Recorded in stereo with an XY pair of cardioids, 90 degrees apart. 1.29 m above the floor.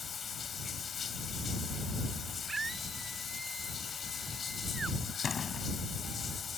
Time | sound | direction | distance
0.0 | running water | 50° left | ?
2.5 | a scream | 30° right | ?
5.2 | a door slam | 45° left | ?